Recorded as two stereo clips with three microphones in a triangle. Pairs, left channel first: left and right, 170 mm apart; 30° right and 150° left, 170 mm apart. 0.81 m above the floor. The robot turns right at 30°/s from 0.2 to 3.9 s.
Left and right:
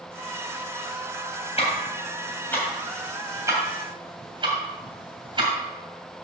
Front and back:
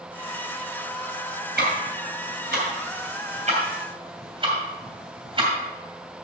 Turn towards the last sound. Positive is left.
turn(degrees=-150)